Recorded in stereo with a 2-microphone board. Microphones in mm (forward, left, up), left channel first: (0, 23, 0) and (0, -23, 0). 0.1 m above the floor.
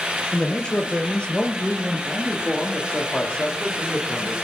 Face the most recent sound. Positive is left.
turn(degrees=25)  # may be behind; listen again after turning